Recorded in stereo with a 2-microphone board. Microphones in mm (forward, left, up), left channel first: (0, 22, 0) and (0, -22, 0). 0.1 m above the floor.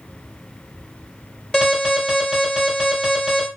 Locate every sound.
1.5 s an alarm: 20° left (ahead or behind), 1.8 m